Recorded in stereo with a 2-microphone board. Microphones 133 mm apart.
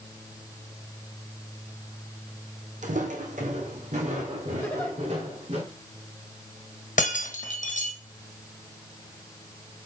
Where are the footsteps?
70° right (ahead or behind), 1.3 m; by 5.6 s 55° right (ahead or behind), 3.5 m.